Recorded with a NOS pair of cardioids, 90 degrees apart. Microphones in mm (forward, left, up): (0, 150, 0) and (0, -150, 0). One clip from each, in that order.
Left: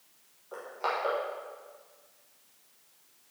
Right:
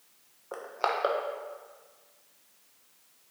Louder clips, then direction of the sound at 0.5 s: Right 2 dB; 55° right.